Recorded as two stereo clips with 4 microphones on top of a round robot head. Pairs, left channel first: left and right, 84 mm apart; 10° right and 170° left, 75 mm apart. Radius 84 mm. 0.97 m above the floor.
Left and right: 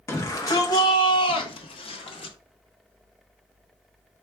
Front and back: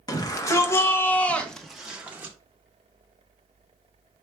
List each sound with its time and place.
0.1 s a shout: 30° left, 1.1 m; by 2.4 s 100° left, 0.9 m